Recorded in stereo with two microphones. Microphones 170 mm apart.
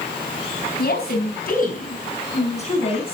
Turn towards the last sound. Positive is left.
turn(degrees=35)  # may be behind; listen again after turning